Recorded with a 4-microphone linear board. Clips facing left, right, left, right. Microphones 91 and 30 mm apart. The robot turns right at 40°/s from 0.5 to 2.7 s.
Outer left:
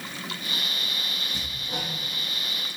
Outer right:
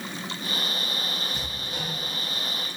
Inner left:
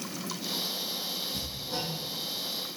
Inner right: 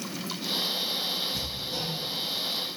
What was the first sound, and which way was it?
Hammering, 40° left (ahead or behind).